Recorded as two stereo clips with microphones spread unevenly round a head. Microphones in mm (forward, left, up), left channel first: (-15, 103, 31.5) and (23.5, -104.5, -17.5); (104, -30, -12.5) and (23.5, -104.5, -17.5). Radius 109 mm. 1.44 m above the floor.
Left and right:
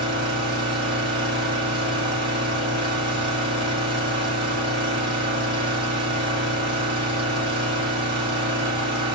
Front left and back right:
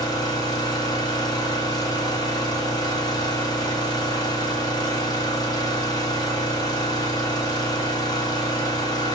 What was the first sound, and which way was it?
An engine running, 10° right.